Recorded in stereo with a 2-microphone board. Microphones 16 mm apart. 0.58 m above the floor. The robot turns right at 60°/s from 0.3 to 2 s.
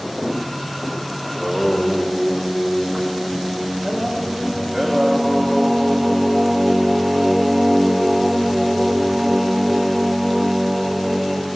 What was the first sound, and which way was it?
Singing, 5° right (ahead or behind).